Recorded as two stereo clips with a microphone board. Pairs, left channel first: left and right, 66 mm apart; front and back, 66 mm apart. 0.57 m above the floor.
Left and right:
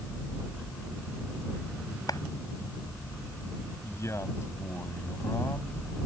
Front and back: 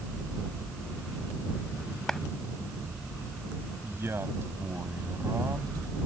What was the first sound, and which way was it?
A clap, 80° left.